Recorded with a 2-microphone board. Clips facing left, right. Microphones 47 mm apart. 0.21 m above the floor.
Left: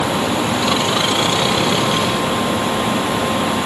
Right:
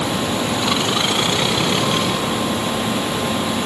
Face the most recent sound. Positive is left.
No sound to turn to.